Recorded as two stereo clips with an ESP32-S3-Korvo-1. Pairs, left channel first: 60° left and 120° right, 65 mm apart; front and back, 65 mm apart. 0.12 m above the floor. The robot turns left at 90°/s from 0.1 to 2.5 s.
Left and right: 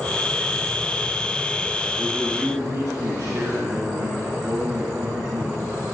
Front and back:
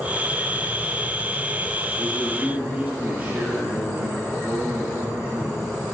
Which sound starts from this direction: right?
A man speaking, at 2.0 s.